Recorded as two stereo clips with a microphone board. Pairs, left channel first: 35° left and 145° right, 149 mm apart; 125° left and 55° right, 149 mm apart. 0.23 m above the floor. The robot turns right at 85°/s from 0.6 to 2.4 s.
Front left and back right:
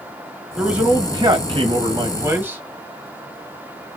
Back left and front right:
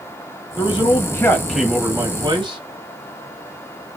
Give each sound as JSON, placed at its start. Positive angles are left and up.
{"t": 0.6, "sound": "a man speaking", "azimuth_deg": 125, "distance_m": 1.5}